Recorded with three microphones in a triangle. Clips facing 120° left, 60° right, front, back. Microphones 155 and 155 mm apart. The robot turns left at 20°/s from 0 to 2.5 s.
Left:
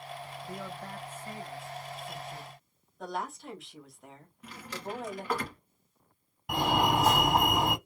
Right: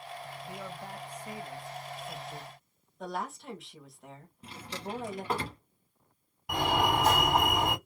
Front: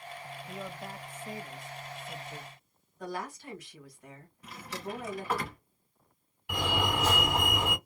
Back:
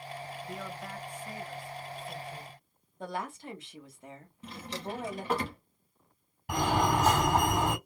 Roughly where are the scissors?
I don't hear scissors.